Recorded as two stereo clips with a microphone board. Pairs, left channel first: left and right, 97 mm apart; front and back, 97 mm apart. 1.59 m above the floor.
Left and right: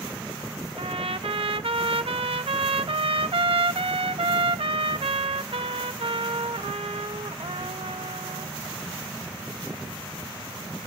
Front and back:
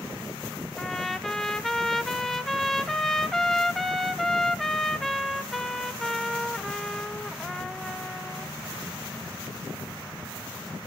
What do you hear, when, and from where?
0.8 s a trumpet: 90° right, 0.8 m